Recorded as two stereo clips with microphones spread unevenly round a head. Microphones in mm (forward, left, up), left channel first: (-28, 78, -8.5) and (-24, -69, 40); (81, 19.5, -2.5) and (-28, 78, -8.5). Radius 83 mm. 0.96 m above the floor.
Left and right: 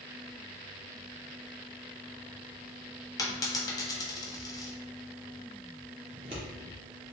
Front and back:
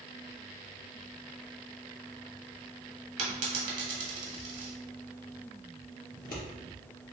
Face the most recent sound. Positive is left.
turn(degrees=-30)